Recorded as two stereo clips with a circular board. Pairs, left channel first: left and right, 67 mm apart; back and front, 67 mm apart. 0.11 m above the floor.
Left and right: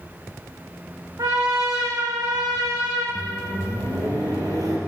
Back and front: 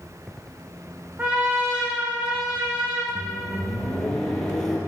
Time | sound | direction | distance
1.2 | a trumpet | 65° right | 3 m
3.1 | a microwave | 100° right | 3 m